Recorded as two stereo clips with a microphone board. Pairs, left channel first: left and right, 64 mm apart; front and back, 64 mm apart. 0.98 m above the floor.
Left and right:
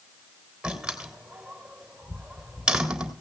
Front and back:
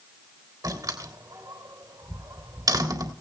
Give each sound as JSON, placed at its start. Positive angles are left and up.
{"t": 0.6, "sound": "a door slam", "azimuth_deg": -170, "distance_m": 3.0}